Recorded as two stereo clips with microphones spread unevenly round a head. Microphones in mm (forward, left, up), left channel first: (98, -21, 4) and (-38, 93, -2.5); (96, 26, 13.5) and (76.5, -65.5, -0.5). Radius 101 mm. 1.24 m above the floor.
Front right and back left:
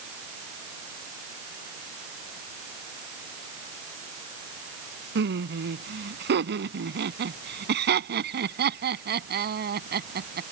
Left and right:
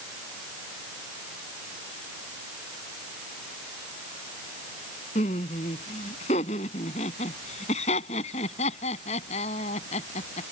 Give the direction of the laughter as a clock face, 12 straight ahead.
8 o'clock.